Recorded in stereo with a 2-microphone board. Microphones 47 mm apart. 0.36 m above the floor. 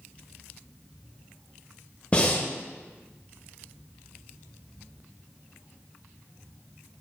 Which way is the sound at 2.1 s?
30° left (ahead or behind).